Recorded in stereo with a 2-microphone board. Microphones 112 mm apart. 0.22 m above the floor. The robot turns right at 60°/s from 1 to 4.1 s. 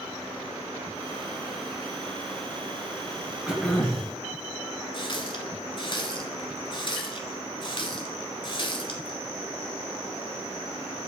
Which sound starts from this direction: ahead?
Throat clearing, at 3.5 s.